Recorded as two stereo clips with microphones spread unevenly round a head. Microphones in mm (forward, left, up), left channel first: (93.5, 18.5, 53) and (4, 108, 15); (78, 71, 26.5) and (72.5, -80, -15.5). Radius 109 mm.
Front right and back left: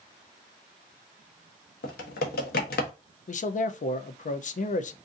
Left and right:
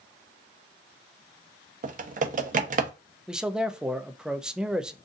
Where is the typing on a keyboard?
60° right, 0.8 m.